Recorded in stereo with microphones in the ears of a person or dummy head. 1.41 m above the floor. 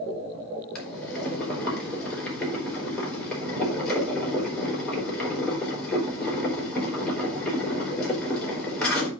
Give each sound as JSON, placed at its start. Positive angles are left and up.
{"t": 0.8, "sound": "boiling", "side_deg": 0, "distance_m": 4.5}